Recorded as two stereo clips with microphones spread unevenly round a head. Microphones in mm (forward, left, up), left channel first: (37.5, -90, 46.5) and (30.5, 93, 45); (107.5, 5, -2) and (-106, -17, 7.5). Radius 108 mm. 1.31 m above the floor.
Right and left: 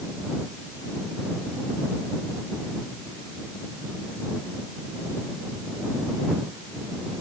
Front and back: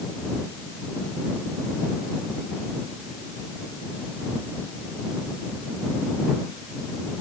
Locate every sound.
Only background noise.